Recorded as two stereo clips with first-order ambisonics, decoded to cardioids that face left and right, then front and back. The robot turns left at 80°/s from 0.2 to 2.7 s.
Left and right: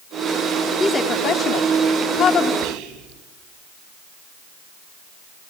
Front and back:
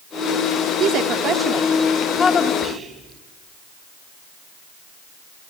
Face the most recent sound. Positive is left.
turn(degrees=-105)